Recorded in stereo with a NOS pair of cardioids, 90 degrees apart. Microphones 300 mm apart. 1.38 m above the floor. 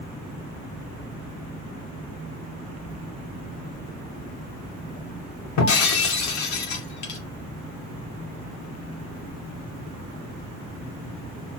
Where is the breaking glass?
70° left, 2.5 m.